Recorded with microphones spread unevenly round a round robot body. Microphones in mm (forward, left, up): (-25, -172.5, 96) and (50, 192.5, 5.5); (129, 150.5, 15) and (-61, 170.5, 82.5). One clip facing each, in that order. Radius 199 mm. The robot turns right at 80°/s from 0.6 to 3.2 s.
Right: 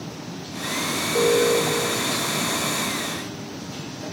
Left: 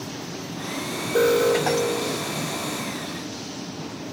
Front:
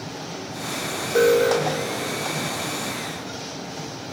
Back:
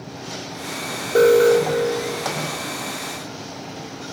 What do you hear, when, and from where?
1.1 s an alarm: 120° left, 2 m; by 2.3 s 150° right, 2 m